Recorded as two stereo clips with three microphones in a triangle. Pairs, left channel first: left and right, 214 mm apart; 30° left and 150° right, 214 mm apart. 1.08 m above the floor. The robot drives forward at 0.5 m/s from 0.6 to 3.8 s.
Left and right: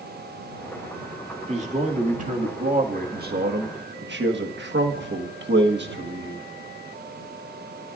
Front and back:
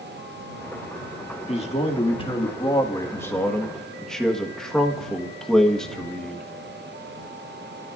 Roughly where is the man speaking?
Ahead right.